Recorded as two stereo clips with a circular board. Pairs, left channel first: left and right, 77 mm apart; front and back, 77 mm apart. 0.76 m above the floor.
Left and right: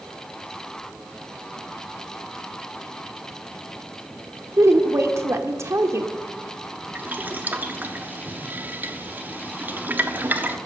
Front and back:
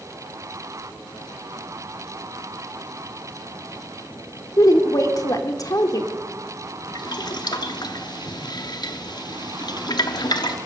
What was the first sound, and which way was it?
A woman speaking, 40° right.